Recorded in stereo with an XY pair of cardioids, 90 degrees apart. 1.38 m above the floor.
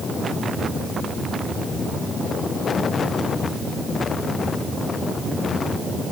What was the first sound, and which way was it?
Only background noise.